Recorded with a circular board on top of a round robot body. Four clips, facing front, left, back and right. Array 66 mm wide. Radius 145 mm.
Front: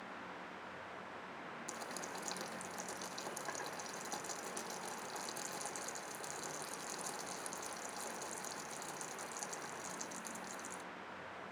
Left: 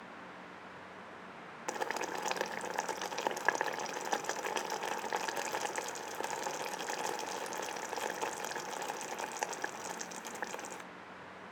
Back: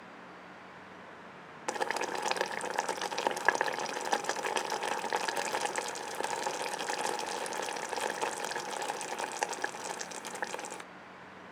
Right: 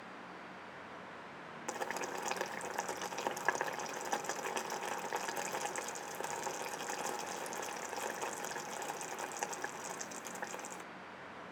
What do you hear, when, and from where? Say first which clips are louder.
1.7 s boiling: left 3 dB, back 16 dB; 165° left, 1.1 m